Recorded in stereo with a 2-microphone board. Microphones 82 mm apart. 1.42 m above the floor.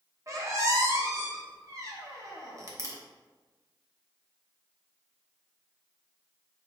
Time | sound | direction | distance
0.3 | a squeak | 40° right (ahead or behind) | 1.0 m